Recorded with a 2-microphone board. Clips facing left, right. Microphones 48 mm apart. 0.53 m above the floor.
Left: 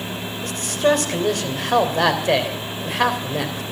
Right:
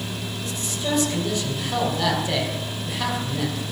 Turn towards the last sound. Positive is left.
turn(degrees=60)  # may be behind; listen again after turning